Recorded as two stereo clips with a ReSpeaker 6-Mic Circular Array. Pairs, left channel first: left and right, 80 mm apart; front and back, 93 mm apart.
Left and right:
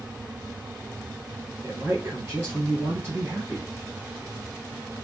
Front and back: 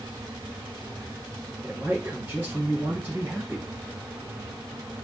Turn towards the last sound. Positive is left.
turn(degrees=-130)